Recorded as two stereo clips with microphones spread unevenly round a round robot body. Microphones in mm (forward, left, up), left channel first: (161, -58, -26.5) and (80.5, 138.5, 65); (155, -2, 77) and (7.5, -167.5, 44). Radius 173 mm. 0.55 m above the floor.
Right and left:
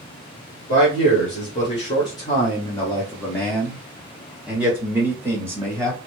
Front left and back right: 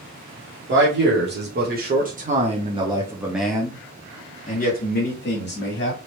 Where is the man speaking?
120° right, 1.8 m; by 6.0 s 20° left, 1.6 m.